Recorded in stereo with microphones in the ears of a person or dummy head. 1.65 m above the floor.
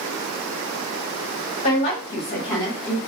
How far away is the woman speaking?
About 1.4 m.